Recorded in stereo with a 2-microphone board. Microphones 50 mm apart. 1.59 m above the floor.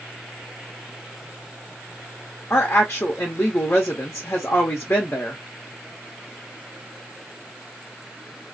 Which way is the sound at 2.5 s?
45° left (ahead or behind).